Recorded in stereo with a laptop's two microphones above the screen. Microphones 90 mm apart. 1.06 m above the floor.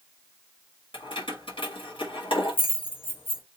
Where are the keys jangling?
70° left (ahead or behind), 1.4 m.